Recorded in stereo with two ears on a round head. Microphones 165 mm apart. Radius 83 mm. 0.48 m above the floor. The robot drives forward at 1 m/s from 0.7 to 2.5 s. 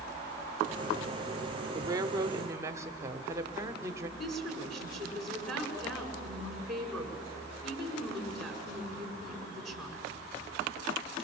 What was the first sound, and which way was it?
A woman speaking, 20° right (ahead or behind).